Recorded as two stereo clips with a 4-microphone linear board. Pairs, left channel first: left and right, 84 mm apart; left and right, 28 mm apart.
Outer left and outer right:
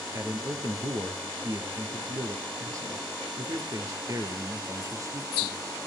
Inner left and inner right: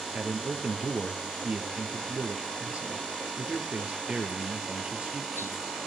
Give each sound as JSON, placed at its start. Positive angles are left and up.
{"t": 0.1, "sound": "a man speaking", "side_deg": -40, "distance_m": 2.5}